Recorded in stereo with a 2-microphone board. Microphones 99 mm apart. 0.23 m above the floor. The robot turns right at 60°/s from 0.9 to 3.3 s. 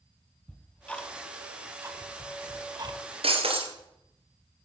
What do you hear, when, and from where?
0.5 s ticking: 15° left (ahead or behind), 0.9 m; by 3.0 s 45° right (ahead or behind), 0.9 m
3.2 s breaking glass: 75° right (ahead or behind), 1.8 m